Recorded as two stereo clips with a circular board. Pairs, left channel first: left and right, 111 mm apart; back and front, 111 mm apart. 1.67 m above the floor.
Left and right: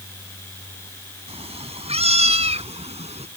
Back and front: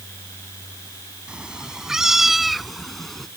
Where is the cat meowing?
80° right; by 3.3 s 95° right.